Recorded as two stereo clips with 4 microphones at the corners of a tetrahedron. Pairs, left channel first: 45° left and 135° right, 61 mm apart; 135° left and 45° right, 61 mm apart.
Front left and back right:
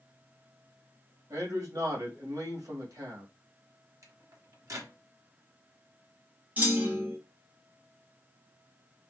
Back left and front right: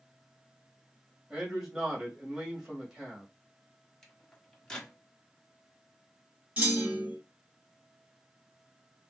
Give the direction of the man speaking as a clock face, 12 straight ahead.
4 o'clock.